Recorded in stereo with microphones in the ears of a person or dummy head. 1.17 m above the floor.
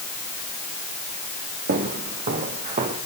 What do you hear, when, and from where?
1.7 s footsteps: 50° right (ahead or behind), 4.5 m; by 3.0 s 45° right (ahead or behind), 5 m